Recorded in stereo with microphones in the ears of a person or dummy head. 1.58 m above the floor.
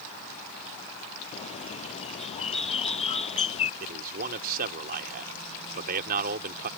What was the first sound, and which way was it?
A bird, 40° left (ahead or behind).